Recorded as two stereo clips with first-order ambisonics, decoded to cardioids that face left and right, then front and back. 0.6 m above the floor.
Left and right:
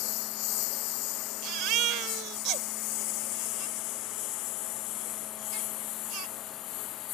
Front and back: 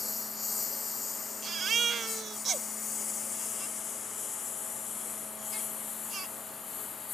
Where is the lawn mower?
75° left; by 7.2 s 60° left.